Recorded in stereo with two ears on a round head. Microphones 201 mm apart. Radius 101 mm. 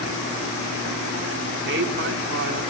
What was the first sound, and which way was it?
A woman speaking, 50° right (ahead or behind).